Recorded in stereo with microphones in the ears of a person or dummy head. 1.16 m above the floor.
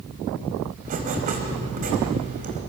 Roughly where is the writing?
Right.